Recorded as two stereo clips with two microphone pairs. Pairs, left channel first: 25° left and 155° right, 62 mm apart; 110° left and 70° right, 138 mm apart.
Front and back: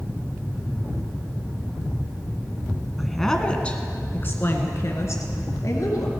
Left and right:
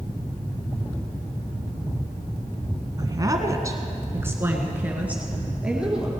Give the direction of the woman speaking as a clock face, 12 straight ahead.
2 o'clock.